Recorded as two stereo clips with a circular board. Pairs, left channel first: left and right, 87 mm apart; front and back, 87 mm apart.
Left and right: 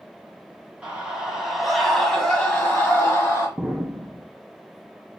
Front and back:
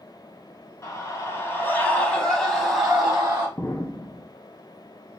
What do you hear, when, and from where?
0.8 s a scream: 20° right, 1.2 m; by 3.5 s 125° left, 1.1 m
3.6 s an explosion: 20° right, 0.7 m